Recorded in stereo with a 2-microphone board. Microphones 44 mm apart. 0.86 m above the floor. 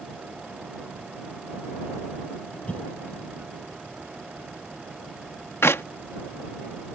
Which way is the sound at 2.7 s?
30° left (ahead or behind).